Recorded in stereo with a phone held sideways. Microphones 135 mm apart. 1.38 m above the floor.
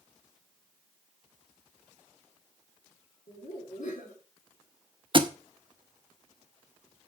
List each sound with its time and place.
3.3 s laughter: 85° left, 4 m
5.1 s a thud: 35° right (ahead or behind), 0.9 m